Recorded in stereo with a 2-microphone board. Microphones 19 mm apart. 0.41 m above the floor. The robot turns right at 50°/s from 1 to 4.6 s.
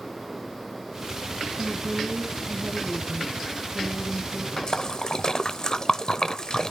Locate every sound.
1.6 s a woman speaking: 130° right, 4 m; by 4.5 s 15° left, 4 m
4.6 s a splash: 35° left (ahead or behind), 0.6 m